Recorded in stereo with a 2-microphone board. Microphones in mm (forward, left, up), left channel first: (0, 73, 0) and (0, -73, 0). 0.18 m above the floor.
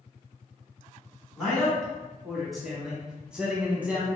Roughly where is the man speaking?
Centre.